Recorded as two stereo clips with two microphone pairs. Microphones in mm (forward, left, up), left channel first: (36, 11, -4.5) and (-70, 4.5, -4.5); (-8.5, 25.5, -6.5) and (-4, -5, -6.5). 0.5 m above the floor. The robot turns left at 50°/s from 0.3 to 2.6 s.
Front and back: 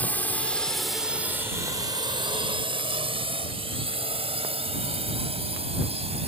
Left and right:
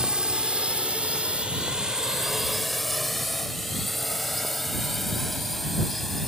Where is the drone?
55° right; by 6.3 s 175° right.